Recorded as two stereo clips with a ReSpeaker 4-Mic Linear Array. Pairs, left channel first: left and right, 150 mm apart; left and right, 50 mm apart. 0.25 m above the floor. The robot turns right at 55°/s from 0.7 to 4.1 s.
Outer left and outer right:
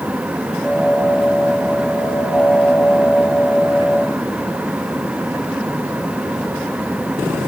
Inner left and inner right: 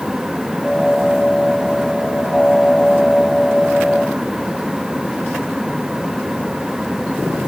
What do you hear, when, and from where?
Only background noise.